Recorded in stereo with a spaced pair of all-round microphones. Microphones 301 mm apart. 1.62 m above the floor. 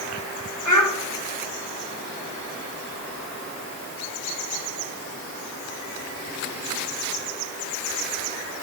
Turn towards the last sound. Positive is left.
turn(degrees=70)  # may be behind; listen again after turning